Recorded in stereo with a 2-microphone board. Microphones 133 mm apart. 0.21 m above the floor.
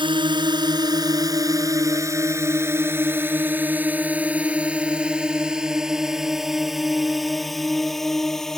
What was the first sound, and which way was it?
A drone, 40° right (ahead or behind).